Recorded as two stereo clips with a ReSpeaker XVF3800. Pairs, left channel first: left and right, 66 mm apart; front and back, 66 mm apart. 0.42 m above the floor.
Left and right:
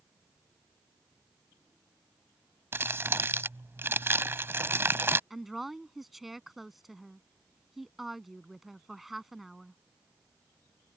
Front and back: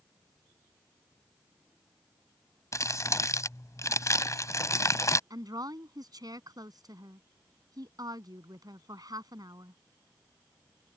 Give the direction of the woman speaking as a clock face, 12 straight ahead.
6 o'clock.